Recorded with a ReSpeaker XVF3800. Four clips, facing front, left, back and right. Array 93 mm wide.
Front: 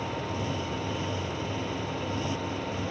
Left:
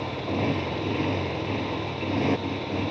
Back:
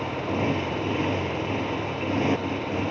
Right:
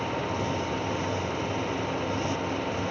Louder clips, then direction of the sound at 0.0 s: Left 1 dB, back 6 dB; 140° left.